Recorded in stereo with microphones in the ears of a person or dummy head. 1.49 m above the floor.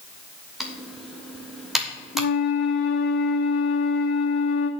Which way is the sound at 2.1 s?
40° left (ahead or behind).